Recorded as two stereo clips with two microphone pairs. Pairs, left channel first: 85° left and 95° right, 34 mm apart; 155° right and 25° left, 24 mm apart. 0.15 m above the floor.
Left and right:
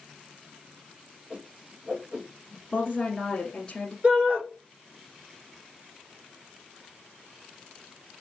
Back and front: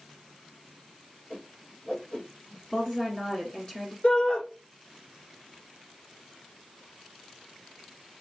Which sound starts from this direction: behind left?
A woman speaking, at 2.7 s.